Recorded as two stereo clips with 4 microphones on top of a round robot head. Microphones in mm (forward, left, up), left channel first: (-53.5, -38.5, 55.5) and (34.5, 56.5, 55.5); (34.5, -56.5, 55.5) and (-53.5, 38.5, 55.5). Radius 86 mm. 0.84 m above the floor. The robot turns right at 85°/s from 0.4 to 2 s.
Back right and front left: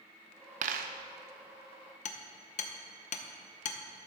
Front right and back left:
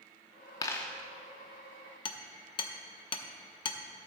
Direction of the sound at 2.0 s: 100° right.